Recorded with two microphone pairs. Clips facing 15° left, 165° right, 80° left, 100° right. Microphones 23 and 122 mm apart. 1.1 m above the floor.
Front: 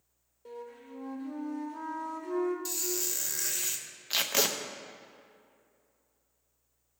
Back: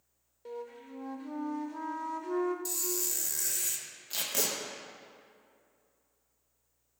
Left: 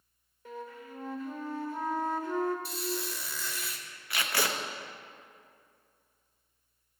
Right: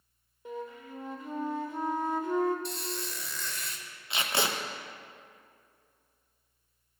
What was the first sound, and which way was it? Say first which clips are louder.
A flute: back 2 dB, right 3 dB; 150° right.